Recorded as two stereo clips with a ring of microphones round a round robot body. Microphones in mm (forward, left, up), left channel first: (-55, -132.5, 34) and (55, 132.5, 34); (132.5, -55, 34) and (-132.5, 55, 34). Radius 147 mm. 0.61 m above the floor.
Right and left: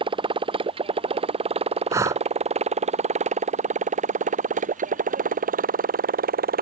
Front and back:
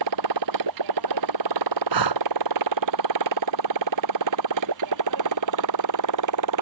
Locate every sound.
0.0 s a motorcycle: 140° left; by 6.6 s 130° left
1.9 s breathing: 150° left